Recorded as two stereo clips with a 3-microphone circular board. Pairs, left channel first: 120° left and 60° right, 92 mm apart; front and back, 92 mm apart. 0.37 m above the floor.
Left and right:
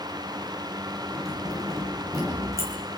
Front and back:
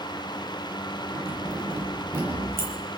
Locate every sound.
1.1 s keys jangling: 115° right, 8 m